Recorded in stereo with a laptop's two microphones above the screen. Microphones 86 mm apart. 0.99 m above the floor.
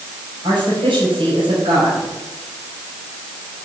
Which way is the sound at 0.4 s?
75° right (ahead or behind).